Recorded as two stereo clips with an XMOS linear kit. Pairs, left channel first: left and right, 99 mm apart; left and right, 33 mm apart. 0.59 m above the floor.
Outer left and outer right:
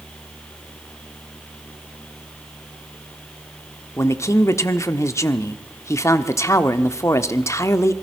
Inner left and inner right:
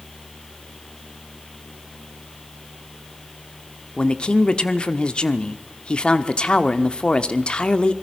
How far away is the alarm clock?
No alarm clock in this recording.